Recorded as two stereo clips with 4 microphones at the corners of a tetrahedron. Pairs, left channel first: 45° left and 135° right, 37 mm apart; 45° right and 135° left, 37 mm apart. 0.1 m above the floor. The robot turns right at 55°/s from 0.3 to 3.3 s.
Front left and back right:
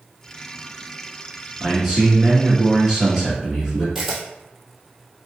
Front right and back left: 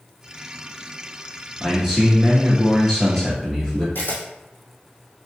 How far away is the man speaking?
About 1.3 m.